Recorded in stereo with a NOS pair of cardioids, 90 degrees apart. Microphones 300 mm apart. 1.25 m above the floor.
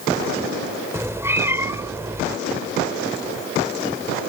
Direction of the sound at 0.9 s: 10° right.